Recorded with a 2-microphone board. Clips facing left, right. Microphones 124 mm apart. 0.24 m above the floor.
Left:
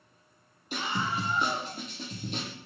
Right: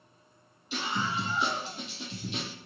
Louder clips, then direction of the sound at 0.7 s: Even; 50° left (ahead or behind).